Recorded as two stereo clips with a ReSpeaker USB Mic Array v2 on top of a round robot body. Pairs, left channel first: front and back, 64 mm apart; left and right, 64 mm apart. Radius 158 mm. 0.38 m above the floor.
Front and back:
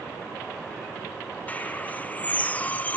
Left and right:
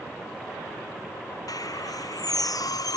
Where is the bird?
65° left.